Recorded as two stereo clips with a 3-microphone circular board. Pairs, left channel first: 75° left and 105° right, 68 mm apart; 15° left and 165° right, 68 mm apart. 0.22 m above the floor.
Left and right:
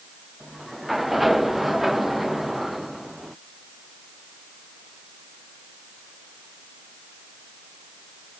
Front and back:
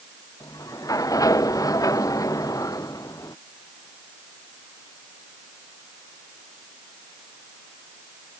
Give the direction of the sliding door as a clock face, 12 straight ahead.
1 o'clock.